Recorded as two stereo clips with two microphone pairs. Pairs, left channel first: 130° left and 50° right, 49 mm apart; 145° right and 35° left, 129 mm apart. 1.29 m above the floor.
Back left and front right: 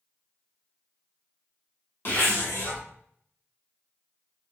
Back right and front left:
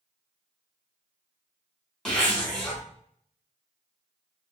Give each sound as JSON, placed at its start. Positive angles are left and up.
{"t": 2.0, "sound": "a zipper", "azimuth_deg": 135, "distance_m": 1.1}